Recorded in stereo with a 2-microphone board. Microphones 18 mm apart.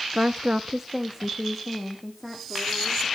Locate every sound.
0.1 s a woman speaking: 55° right (ahead or behind), 0.7 m; by 3.1 s centre (ahead or behind), 4 m